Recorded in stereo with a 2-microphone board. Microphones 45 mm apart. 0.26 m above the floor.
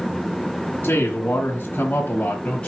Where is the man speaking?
50° left (ahead or behind), 2.0 m; by 2.7 s 25° left (ahead or behind), 1.5 m.